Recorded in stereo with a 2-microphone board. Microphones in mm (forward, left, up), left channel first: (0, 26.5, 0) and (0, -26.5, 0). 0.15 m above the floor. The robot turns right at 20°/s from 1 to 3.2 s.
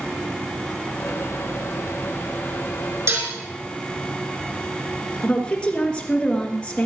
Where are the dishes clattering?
55° right (ahead or behind), 4.5 m; by 3.3 s 60° right (ahead or behind), 4.5 m.